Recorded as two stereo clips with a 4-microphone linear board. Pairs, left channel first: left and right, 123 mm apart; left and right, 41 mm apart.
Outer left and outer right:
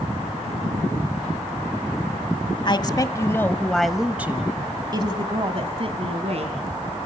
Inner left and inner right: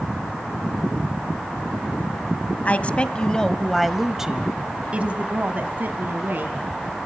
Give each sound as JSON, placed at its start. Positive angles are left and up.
{"t": 2.6, "sound": "a woman speaking", "side_deg": 40, "distance_m": 1.3}